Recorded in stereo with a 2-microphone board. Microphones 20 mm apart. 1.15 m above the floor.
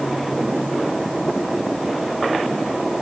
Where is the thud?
I don't hear a thud.